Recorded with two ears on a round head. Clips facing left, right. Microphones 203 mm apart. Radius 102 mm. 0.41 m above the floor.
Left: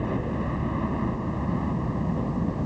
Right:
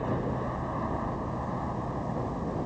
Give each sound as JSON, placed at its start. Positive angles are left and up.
{"t": 0.0, "sound": "a helicopter", "side_deg": 40}